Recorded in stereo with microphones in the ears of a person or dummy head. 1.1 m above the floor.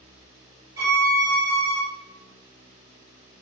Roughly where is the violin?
Centre.